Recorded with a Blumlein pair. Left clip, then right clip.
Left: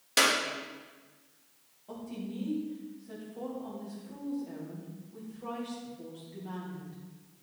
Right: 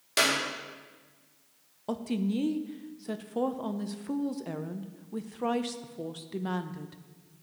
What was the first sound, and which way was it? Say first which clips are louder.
A clap: left 1 dB; 5° left.